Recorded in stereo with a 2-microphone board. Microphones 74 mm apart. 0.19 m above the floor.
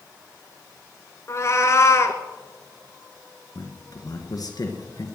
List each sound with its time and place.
1.3 s a cat meowing: 40° left (ahead or behind), 1.2 m
3.5 s a man speaking: 55° left (ahead or behind), 2.5 m